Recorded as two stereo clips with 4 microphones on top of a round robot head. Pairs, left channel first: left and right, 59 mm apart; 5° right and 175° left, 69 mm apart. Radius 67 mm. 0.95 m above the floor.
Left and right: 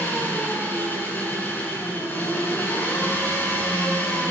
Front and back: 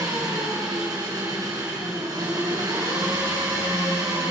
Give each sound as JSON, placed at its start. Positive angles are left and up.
{"t": 0.0, "sound": "an engine running", "azimuth_deg": 145, "distance_m": 8.5}